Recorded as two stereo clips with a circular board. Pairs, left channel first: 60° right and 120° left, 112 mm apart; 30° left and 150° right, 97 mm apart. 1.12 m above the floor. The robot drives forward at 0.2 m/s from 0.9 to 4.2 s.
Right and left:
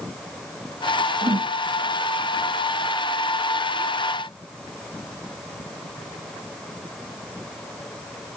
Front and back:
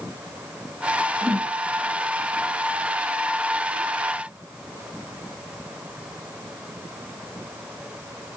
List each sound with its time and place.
1.2 s a whoosh: 125° left, 0.9 m; by 1.5 s 130° left, 0.9 m